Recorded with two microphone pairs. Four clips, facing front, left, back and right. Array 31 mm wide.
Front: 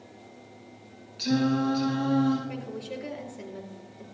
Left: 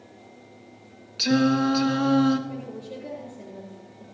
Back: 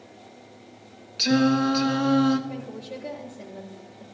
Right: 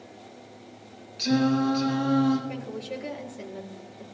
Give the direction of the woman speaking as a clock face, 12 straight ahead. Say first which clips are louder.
Right 1 dB, even; 2 o'clock.